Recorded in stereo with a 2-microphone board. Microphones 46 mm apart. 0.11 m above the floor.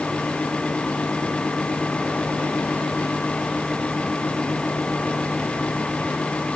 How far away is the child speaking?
I don't hear a child speaking.